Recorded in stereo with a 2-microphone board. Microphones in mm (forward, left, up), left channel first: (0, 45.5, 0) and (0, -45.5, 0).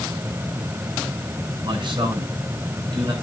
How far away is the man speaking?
About 8.5 m.